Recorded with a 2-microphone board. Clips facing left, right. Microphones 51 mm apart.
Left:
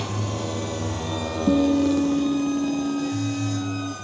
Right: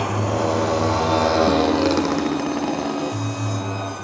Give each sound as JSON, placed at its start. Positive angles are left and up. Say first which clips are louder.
{"t": 0.0, "sound": "a motorcycle", "louder": "right 8 dB", "side_deg": -45}
{"t": 1.5, "sound": "a guitar", "louder": "right 1 dB", "side_deg": 35}